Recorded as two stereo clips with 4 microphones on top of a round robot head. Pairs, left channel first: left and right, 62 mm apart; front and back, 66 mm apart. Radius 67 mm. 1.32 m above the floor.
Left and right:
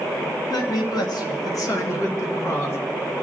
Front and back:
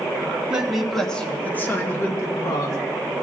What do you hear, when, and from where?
0.5 s a man speaking: 105° left, 1.5 m; by 2.8 s 40° left, 2 m